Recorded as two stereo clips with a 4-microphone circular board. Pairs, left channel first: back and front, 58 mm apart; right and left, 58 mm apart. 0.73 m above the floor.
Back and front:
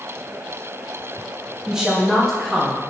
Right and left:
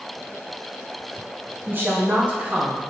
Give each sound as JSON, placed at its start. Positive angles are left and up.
{"t": 1.7, "sound": "a woman speaking", "azimuth_deg": 70, "distance_m": 1.0}